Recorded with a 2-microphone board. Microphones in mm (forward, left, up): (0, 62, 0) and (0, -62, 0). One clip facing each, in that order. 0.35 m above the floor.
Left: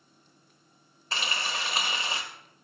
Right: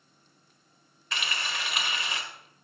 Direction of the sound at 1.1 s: 35° left (ahead or behind).